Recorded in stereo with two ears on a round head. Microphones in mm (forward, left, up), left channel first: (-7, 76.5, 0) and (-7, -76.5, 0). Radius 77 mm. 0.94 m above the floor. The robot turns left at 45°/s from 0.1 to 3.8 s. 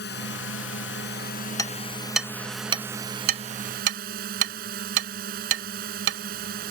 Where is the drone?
110° left; by 6.7 s 55° right.